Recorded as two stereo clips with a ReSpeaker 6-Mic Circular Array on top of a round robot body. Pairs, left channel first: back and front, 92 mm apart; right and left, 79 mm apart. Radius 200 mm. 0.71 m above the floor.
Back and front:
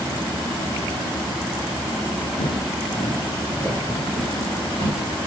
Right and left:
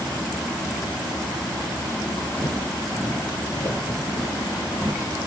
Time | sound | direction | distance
2.4 | footsteps | 175° right | 1.1 m